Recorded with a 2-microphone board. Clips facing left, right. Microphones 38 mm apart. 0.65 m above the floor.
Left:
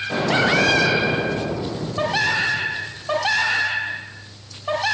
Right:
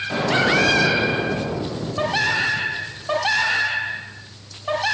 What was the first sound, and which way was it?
An explosion, 5° left (ahead or behind).